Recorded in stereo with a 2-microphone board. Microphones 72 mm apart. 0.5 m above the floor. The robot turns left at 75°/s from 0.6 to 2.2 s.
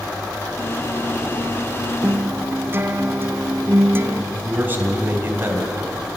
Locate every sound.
2.0 s a guitar: 25° right (ahead or behind), 1.0 m; by 4.2 s 30° right (ahead or behind), 1.0 m
4.3 s a man speaking: 25° right (ahead or behind), 4 m